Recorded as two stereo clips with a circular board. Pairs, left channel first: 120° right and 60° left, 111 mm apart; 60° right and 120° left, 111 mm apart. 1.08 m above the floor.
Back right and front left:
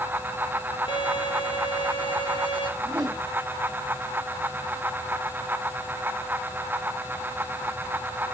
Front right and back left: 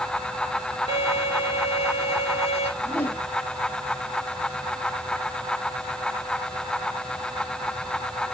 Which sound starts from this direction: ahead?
A whoosh, at 2.8 s.